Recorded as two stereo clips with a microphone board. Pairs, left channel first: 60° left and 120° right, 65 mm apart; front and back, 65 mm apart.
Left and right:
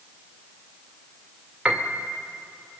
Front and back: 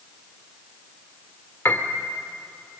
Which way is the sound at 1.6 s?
45° right.